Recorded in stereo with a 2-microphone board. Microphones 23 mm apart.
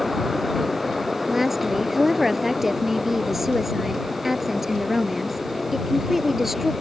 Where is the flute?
No flute in this recording.